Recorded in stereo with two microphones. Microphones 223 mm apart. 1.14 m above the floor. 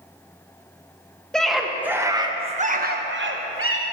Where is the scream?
5° left (ahead or behind), 1.5 m; by 3.8 s 70° right (ahead or behind), 1.2 m.